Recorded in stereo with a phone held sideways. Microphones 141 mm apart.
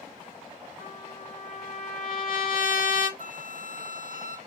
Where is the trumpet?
75° left (ahead or behind), 0.9 m.